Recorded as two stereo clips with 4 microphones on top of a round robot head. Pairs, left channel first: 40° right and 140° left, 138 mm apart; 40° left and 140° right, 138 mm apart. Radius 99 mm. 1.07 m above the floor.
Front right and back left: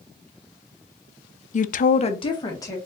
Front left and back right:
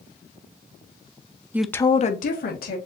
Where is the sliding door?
No sliding door in this recording.